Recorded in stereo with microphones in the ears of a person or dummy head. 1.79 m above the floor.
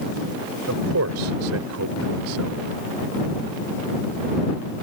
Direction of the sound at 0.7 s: 85° right.